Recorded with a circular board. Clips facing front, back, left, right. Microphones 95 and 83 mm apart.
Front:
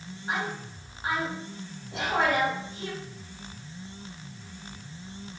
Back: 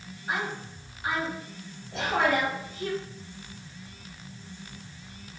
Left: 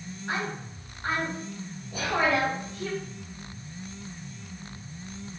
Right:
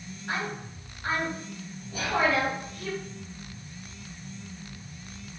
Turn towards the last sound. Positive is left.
turn(degrees=55)